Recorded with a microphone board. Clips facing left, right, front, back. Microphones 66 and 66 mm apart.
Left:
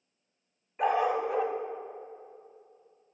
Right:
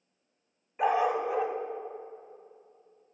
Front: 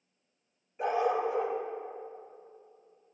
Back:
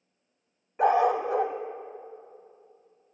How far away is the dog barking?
About 0.7 m.